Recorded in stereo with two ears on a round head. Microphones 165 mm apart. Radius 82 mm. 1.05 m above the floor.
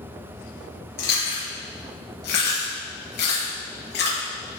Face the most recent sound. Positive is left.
turn(degrees=60)  # may be behind; listen again after turning